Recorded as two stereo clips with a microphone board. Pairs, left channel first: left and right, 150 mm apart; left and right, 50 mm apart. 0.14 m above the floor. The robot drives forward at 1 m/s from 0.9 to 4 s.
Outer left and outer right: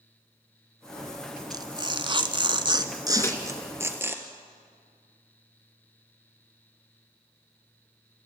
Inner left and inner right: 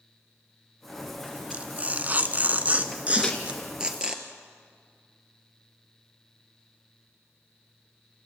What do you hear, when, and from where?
1.5 s tearing paper: 25° right (ahead or behind), 1.3 m; by 4.2 s 15° right (ahead or behind), 2 m
3.2 s a microwave: 15° left (ahead or behind), 1.6 m